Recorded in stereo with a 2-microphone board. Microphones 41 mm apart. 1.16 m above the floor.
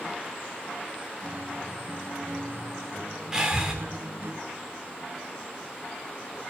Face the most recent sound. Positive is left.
turn(degrees=-15)  # may be behind; listen again after turning